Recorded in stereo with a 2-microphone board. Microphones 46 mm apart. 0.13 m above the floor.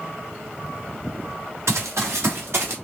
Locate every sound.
1.7 s running footsteps: 75° right (ahead or behind), 3 m; by 2.8 s 60° right (ahead or behind), 3.5 m